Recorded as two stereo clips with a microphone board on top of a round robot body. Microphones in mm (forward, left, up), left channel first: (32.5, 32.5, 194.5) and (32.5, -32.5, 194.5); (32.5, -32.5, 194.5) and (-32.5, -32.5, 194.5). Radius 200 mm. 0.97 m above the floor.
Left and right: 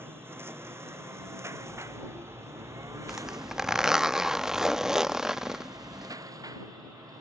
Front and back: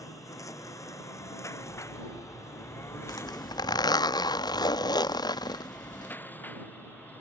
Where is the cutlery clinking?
40° right.